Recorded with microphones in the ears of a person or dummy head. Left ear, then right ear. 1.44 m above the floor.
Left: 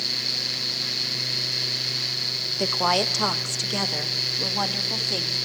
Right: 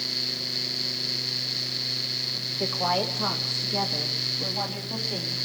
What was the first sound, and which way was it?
A woman speaking, 80° left.